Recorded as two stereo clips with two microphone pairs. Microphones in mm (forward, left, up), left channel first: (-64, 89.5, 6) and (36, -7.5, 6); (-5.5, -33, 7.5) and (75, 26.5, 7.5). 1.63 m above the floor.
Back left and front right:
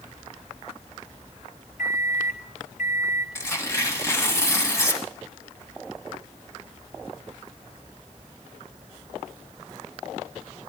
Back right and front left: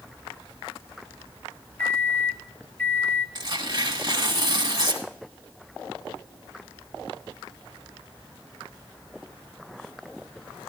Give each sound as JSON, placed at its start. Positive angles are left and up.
{"t": 1.8, "sound": "a microwave", "azimuth_deg": 140, "distance_m": 0.7}
{"t": 3.4, "sound": "tearing paper", "azimuth_deg": 70, "distance_m": 1.6}